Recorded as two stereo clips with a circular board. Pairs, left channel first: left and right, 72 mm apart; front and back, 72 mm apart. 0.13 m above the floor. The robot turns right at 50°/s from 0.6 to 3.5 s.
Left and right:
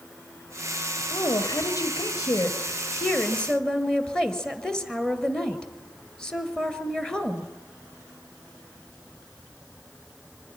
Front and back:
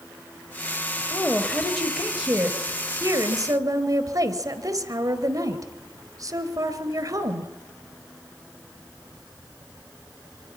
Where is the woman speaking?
50° left, 1.8 m; by 7.5 s 170° left, 1.8 m.